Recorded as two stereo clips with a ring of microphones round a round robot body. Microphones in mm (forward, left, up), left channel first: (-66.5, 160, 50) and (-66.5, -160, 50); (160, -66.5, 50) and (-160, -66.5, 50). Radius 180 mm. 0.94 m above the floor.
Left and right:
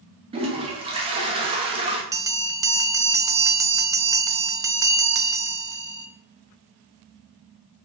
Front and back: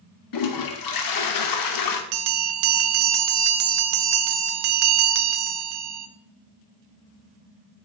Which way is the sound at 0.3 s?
15° right.